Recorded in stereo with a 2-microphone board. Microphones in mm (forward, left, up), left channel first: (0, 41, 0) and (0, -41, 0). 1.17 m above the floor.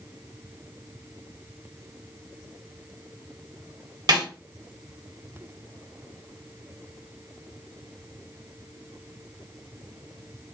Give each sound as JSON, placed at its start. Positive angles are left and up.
{"t": 4.1, "sound": "a snare drum", "side_deg": -60, "distance_m": 1.2}